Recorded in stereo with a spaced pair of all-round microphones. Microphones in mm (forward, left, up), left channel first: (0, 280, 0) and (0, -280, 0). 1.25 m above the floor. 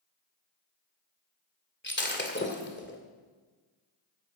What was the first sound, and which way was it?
Breaking glass, 20° left (ahead or behind).